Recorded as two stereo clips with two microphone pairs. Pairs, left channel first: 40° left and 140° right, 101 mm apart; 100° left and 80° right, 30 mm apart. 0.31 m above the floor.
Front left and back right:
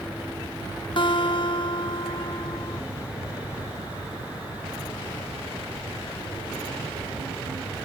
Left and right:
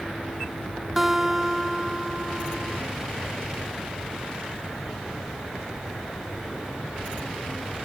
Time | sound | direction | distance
1.0 | a guitar | 5° left | 0.9 m